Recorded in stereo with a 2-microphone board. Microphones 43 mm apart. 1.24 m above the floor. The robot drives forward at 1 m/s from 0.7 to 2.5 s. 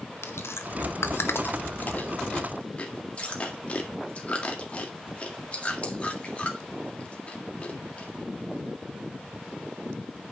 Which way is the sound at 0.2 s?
70° left (ahead or behind).